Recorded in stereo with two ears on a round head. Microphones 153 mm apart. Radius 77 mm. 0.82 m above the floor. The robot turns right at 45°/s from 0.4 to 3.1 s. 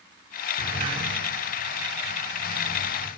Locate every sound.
0.6 s a sliding door: 35° right (ahead or behind), 9 m